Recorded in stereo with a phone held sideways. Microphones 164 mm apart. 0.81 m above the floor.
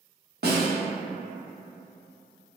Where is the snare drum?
75° right (ahead or behind), 0.9 m.